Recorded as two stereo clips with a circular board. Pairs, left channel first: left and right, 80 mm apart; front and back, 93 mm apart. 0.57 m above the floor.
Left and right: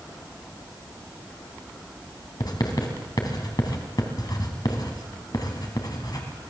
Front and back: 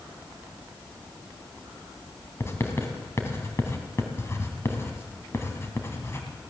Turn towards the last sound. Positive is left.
turn(degrees=60)